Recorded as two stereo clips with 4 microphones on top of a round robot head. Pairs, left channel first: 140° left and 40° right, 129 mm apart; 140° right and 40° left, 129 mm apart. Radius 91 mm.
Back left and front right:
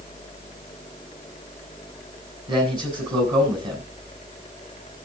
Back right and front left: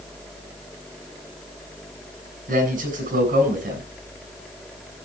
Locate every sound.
2.5 s a man speaking: 15° left, 6 m